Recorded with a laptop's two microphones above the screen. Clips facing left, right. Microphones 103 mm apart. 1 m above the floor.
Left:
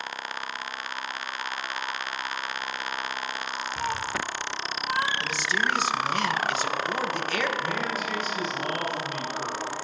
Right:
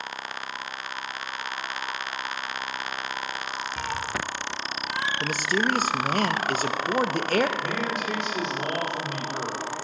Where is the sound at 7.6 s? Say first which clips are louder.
Right 1 dB; 75° right (ahead or behind), 3 m.